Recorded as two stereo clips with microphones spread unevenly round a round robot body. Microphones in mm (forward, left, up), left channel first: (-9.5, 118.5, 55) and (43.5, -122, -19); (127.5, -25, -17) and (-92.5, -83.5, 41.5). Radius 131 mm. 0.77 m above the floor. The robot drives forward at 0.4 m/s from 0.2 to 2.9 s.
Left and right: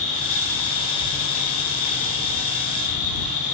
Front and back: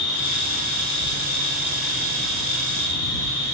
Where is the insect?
55° left, 0.9 m; by 3.5 s 130° left, 1.0 m.